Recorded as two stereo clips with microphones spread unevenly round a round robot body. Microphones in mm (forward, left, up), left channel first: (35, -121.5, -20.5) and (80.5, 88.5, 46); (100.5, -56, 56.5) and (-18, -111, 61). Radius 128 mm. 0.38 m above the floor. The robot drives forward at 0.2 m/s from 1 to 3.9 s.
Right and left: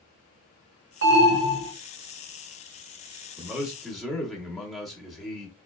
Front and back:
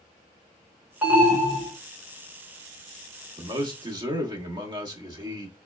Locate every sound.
1.0 s an alarm: 120° left, 1.3 m; by 1.7 s 125° left, 1.4 m
3.4 s a man speaking: 160° right, 0.9 m; by 5.6 s 165° right, 0.9 m